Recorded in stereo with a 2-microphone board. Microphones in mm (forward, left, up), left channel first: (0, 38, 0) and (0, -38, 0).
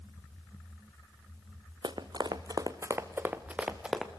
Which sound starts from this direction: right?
Running footsteps, at 1.8 s.